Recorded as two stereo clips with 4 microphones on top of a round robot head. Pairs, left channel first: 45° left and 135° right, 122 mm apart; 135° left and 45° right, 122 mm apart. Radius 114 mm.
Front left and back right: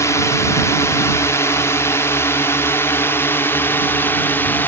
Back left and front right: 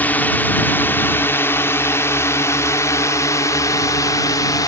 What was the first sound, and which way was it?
A drone, 75° left.